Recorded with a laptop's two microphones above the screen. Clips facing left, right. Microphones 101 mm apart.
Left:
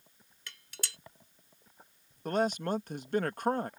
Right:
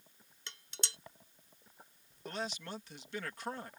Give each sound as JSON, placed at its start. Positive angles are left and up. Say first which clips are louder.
{"t": 0.5, "sound": "dishes clattering", "louder": "left 1 dB", "side_deg": -25}
{"t": 2.2, "sound": "a man speaking", "louder": "left 12 dB", "side_deg": 50}